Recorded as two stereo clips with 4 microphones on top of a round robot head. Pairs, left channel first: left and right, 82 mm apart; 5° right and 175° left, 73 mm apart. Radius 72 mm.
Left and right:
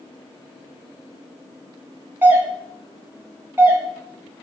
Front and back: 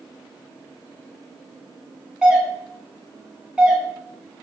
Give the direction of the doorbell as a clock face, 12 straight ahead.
4 o'clock.